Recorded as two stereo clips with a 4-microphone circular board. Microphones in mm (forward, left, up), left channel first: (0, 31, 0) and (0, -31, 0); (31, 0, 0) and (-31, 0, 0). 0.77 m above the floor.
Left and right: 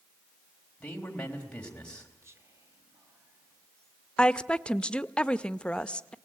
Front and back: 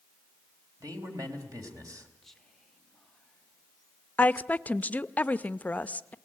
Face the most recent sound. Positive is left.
turn(degrees=30)